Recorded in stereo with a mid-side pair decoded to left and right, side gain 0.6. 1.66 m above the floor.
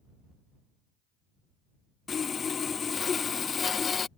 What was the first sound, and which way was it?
Sawing, 30° left.